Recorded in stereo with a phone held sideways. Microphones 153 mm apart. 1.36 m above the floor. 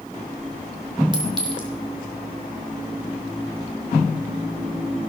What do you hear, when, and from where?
1.1 s a clink: 30° right (ahead or behind), 2.5 m